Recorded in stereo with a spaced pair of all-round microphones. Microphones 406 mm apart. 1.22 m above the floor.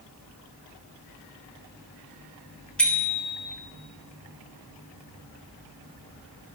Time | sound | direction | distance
2.8 | a bicycle bell | 5° left (ahead or behind) | 3 m